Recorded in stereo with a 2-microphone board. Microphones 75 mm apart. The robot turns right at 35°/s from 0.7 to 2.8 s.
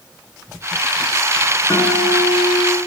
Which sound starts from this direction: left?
A guitar, at 1.7 s.